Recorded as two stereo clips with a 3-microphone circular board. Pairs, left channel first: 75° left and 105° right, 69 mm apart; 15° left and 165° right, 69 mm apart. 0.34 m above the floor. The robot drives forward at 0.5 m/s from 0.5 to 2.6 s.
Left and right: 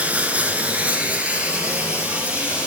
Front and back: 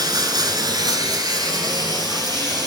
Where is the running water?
175° right, 1.0 m.